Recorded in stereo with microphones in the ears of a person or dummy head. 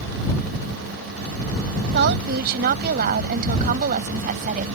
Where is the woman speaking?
55° right (ahead or behind); by 4.7 s 45° right (ahead or behind).